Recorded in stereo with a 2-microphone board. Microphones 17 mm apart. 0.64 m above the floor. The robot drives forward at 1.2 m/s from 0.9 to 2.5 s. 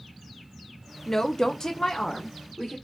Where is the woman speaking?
25° left (ahead or behind), 0.8 m; by 2.8 s 15° left (ahead or behind), 1.4 m.